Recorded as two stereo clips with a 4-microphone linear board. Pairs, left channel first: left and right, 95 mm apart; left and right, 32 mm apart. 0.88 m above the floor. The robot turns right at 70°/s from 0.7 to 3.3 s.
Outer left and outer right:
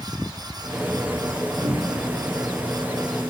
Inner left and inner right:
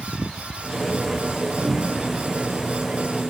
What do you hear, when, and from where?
1.6 s a cupboard door: 5° right (ahead or behind), 1.7 m; by 2.1 s 35° right (ahead or behind), 1.7 m